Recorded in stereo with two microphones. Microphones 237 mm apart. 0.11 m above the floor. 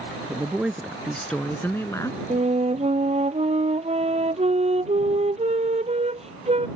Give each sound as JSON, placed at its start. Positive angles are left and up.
{"t": 0.3, "sound": "a woman speaking", "side_deg": -5}
{"t": 2.3, "sound": "a flute", "side_deg": -25}